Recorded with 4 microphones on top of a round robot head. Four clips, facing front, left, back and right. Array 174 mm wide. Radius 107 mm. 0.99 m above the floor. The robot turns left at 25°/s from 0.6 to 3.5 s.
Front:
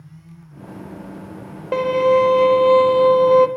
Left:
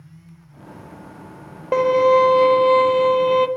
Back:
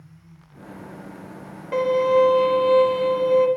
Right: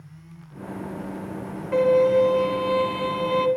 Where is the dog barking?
No dog barking in this recording.